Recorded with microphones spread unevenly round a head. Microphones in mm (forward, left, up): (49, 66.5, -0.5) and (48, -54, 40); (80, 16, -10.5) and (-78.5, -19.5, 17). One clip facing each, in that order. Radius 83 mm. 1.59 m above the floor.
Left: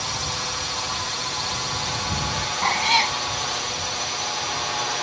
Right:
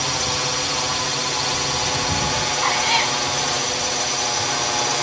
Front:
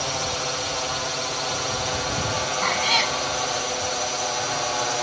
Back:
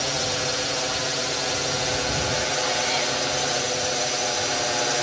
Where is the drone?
105° right; by 5.0 s 120° right.